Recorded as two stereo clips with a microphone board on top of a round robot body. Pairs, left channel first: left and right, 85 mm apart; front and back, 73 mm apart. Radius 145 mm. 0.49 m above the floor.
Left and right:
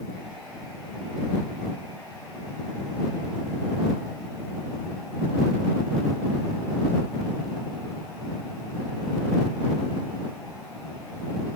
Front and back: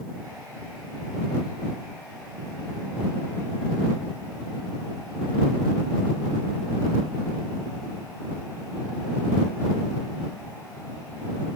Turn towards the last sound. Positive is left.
No sound to turn to.